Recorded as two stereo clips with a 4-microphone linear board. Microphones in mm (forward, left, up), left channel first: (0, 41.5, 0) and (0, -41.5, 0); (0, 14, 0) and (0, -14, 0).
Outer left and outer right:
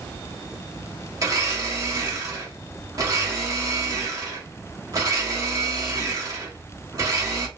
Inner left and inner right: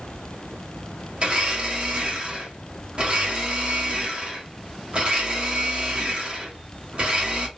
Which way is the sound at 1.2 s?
45° right (ahead or behind).